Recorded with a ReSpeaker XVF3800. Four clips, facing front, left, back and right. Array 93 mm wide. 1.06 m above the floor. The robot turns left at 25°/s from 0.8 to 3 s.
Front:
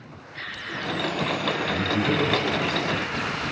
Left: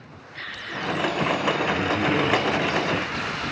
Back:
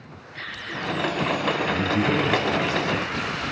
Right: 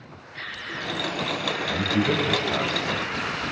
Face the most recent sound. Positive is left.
turn(degrees=-120)